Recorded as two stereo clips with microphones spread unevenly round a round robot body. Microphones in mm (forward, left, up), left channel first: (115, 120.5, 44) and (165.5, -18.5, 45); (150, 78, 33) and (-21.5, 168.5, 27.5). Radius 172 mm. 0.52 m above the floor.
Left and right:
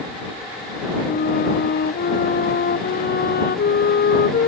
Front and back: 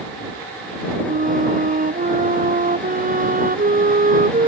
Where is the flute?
105° left.